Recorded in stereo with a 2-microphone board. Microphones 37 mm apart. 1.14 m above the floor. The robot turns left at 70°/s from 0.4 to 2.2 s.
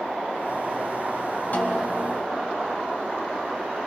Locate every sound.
1.5 s a snare drum: 50° left, 2 m; by 2.2 s straight ahead, 2 m